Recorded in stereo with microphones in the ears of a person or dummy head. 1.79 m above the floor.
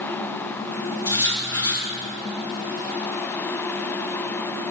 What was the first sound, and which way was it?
Writing, 20° left (ahead or behind).